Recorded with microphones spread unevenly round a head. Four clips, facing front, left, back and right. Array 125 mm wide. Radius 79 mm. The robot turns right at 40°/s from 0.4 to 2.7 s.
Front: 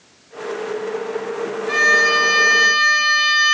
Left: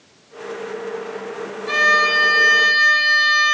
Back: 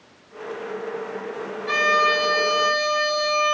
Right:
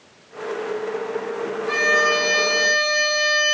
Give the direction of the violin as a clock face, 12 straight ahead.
8 o'clock.